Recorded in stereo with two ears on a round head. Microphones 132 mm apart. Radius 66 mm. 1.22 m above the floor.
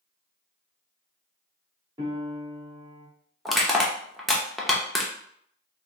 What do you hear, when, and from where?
2.0 s a piano: 30° right (ahead or behind), 1.6 m
3.5 s crushing: centre (ahead or behind), 0.7 m